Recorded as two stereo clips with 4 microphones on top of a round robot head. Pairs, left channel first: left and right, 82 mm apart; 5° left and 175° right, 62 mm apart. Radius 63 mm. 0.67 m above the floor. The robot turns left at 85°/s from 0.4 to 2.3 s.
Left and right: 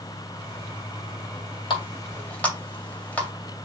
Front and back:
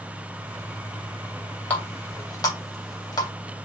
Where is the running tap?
70° left, 2.5 m; by 3.3 s 20° left, 2.5 m.